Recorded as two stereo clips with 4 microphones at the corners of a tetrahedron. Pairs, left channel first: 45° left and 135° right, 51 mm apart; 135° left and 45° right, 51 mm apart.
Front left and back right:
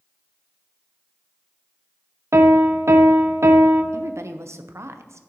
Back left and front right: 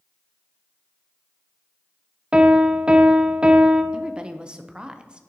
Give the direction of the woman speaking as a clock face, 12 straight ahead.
4 o'clock.